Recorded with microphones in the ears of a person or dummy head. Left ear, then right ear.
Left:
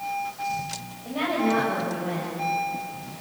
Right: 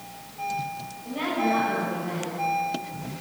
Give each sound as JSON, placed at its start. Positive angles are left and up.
{"t": 1.1, "sound": "a woman speaking", "side_deg": 30, "distance_m": 8.0}